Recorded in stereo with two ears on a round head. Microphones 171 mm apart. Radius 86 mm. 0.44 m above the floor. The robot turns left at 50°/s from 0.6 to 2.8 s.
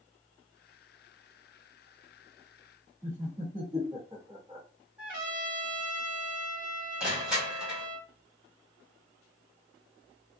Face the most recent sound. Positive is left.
turn(degrees=-5)  # may be behind; listen again after turning